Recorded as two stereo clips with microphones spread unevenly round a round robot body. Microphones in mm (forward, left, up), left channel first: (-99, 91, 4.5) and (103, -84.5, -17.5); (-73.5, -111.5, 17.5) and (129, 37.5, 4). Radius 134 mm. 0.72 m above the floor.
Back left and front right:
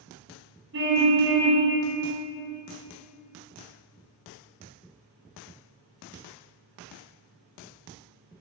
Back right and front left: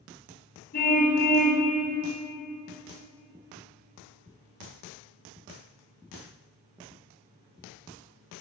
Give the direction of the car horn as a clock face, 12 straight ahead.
3 o'clock.